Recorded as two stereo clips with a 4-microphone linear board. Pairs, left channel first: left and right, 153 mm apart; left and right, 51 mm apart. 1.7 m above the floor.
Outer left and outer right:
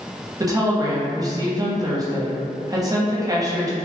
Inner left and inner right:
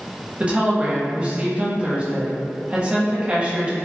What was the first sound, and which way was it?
A woman speaking, 25° right (ahead or behind).